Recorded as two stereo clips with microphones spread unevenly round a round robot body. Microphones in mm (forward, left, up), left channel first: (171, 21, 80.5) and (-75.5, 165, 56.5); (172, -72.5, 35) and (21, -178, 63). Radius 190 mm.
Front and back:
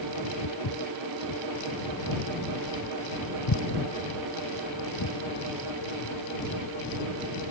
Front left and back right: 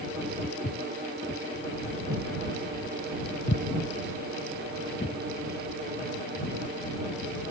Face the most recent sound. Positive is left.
turn(degrees=-10)